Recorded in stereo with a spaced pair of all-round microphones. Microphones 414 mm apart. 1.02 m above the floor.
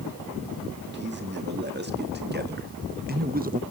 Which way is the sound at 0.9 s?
25° right (ahead or behind).